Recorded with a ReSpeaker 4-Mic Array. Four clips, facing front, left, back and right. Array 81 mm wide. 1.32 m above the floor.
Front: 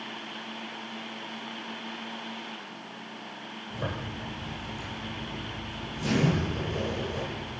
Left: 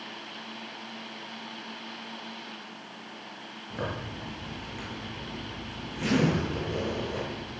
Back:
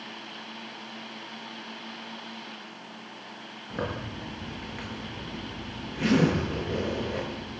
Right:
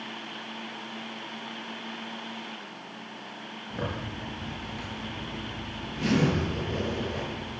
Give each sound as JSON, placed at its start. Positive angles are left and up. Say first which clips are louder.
{"t": 3.7, "sound": "a zipper", "louder": "even, back 2 dB", "azimuth_deg": 175, "distance_m": 8.0}